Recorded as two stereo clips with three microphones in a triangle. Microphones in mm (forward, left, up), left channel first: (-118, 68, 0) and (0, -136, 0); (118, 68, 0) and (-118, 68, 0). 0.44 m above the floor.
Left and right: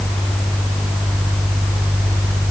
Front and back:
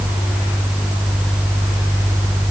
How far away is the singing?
No singing in this recording.